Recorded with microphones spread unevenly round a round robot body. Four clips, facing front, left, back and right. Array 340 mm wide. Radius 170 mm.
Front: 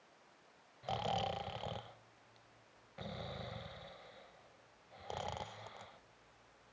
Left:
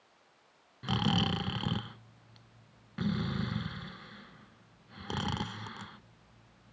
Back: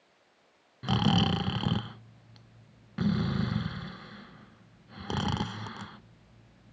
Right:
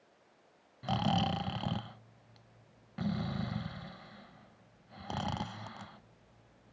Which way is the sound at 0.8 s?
170° left.